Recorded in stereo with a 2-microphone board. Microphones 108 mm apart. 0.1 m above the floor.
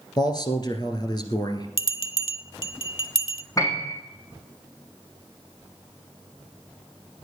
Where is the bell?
50° left (ahead or behind), 0.6 m.